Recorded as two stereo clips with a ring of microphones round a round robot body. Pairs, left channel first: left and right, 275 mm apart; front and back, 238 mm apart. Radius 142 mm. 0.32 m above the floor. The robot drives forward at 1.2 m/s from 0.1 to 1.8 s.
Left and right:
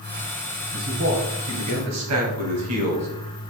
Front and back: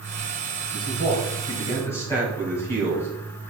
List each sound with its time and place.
0.7 s a man speaking: 50° right, 3 m; by 3.1 s 80° right, 2.5 m